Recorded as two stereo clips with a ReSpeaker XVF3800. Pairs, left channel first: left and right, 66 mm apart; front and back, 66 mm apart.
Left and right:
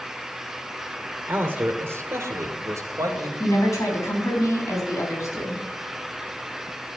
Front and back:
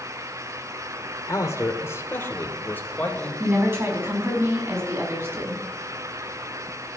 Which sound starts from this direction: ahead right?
A man speaking, at 1.3 s.